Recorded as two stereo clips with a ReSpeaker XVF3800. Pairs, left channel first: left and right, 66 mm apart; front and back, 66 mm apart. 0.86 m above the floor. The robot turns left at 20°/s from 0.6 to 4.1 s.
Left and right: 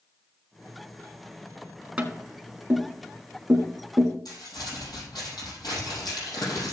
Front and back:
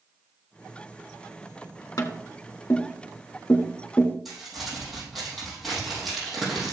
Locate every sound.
2.0 s tapping: 20° right, 1.7 m; by 4.2 s 60° right, 1.7 m
4.2 s crumpling: 90° left, 6 m